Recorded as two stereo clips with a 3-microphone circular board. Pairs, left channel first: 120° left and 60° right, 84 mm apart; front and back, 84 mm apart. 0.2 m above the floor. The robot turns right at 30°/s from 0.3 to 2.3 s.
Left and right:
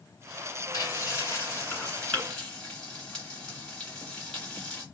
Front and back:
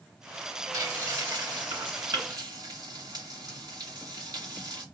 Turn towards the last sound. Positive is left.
turn(degrees=-165)